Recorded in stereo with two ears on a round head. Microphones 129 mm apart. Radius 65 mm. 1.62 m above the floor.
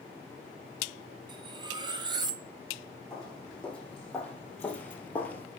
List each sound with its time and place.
1.3 s cutlery clinking: 30° right (ahead or behind), 0.8 m
3.1 s footsteps: 5° left (ahead or behind), 4.5 m; by 5.5 s 10° left (ahead or behind), 1.6 m